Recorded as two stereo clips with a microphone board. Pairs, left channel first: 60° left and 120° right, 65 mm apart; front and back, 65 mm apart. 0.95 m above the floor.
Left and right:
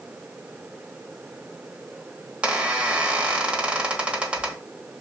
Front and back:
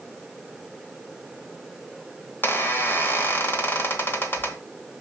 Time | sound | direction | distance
2.4 | a squeak | 50° right | 1.1 m